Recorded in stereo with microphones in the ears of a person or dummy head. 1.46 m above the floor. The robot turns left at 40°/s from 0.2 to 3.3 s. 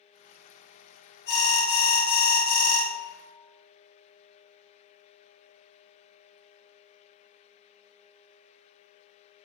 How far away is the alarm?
About 0.8 m.